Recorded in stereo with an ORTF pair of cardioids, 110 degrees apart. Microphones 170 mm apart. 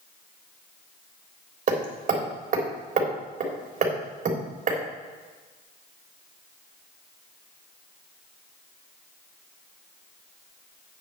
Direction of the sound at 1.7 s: 50° right.